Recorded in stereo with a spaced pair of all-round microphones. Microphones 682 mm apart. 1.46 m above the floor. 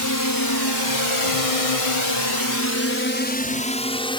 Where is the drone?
25° left (ahead or behind); by 4.2 s 5° left (ahead or behind).